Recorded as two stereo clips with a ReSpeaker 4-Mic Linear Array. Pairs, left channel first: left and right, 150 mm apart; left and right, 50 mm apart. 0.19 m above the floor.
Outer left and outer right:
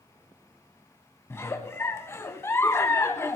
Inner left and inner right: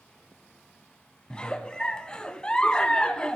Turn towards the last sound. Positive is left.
turn(degrees=20)  # may be behind; listen again after turning